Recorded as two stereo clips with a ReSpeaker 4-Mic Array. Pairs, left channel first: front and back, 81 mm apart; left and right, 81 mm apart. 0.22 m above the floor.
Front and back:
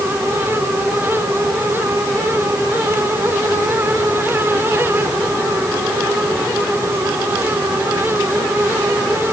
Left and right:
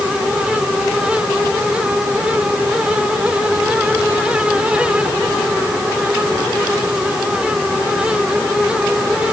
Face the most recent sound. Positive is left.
No sound to turn to.